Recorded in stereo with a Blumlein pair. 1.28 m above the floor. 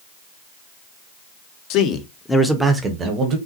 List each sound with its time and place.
1.7 s a man speaking: 40° left, 0.6 m; by 3.4 s 30° right, 0.9 m